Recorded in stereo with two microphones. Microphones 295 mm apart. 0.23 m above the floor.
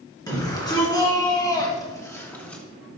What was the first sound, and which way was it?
A shout, 10° left (ahead or behind).